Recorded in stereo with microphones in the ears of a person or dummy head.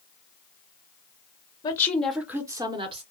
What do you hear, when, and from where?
1.6 s a woman speaking: 20° left (ahead or behind), 0.7 m; by 3.0 s 30° right (ahead or behind), 0.9 m